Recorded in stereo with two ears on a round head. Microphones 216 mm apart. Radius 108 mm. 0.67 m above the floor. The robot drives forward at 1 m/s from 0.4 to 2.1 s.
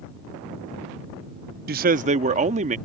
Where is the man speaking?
40° right (ahead or behind); by 2.8 s 30° right (ahead or behind).